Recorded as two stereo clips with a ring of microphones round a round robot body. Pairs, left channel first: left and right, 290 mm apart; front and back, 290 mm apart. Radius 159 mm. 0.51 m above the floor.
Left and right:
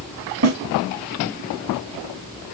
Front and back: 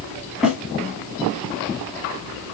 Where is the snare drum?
95° right, 1.6 m.